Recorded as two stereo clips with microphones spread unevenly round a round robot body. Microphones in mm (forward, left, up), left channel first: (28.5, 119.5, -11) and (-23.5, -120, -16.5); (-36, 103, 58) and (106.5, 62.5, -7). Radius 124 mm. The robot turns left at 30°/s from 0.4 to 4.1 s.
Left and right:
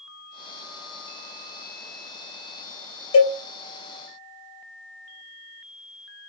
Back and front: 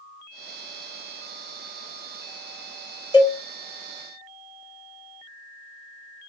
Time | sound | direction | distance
3.1 | a cowbell | 90° left | 2.5 m